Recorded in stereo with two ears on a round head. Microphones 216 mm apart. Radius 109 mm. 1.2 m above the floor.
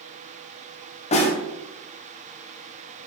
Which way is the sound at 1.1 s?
30° left (ahead or behind).